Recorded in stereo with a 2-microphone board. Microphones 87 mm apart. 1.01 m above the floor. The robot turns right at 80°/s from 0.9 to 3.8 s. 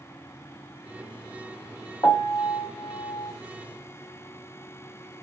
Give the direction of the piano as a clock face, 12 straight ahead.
11 o'clock.